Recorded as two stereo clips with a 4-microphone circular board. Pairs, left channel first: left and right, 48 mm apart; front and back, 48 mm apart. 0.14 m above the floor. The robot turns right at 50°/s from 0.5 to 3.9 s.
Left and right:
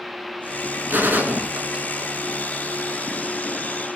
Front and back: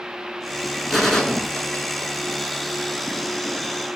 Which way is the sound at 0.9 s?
85° right.